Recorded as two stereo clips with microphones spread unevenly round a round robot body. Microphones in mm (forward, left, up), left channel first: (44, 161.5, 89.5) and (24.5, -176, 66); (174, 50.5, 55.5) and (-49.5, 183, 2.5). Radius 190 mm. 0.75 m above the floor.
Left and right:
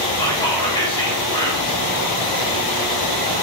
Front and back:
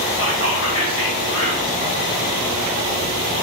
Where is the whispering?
10° left, 1.8 m.